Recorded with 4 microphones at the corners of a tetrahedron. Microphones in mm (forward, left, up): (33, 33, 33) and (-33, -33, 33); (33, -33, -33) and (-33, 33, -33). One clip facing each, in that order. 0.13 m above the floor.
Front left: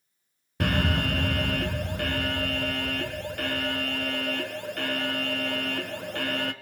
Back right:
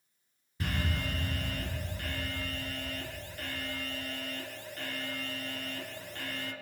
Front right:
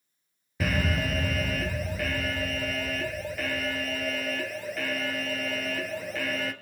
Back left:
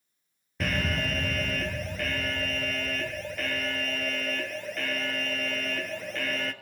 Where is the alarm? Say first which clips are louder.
Front left 9 dB, front right 2 dB; 40° left, 1.3 m.